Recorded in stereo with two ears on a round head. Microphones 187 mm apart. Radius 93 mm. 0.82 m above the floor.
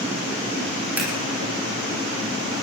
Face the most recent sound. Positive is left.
turn(degrees=-10)  # may be behind; listen again after turning